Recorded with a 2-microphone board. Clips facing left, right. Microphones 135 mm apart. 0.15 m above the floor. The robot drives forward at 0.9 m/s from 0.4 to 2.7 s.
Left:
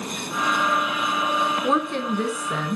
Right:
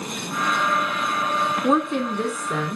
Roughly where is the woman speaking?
Centre.